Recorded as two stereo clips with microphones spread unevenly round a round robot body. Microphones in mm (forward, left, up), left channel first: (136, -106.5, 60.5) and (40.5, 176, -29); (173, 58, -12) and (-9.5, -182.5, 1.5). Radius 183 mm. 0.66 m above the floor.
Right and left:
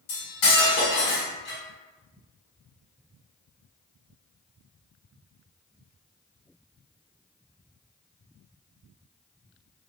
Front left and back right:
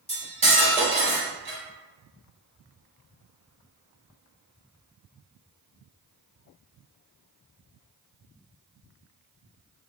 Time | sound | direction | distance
0.1 | cutlery clinking | 55° right | 1.8 m